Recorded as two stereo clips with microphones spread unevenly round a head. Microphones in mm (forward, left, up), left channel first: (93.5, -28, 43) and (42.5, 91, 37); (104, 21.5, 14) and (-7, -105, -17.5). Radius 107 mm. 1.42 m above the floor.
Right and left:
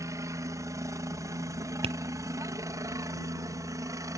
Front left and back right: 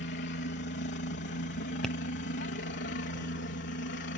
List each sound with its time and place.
0.0 s a helicopter: 55° left
1.8 s tapping: 145° left